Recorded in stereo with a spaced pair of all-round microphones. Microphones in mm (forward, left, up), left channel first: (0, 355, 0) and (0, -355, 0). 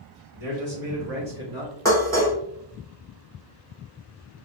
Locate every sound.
0.3 s a man speaking: 55° right (ahead or behind), 1.4 m; by 1.8 s 25° right (ahead or behind), 1.2 m
1.9 s dishes clattering: 5° left (ahead or behind), 1.1 m